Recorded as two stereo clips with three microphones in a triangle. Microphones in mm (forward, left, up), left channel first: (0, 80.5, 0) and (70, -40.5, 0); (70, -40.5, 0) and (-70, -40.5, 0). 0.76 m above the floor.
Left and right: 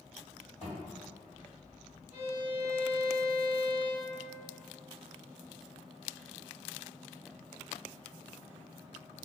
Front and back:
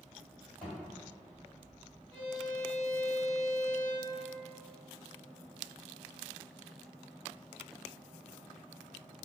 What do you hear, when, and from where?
0.6 s a thud: 85° left, 1.8 m
2.1 s a violin: 85° left, 1.7 m